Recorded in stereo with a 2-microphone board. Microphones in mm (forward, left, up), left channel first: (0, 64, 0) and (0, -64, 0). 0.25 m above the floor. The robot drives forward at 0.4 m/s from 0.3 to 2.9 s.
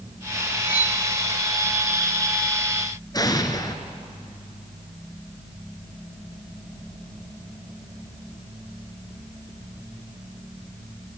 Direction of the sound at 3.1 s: 30° left (ahead or behind).